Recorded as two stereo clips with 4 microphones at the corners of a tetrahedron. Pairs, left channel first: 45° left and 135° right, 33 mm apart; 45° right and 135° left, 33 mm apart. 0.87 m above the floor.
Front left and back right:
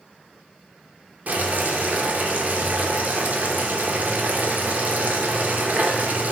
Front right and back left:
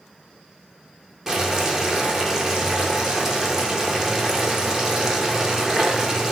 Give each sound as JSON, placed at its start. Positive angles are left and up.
{"t": 1.3, "sound": "boiling", "azimuth_deg": -155, "distance_m": 0.5}